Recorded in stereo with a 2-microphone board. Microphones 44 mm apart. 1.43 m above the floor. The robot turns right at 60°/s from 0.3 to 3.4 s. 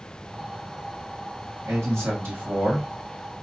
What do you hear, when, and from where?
1.6 s a man speaking: 90° right, 2.0 m; by 2.9 s 15° right, 2.0 m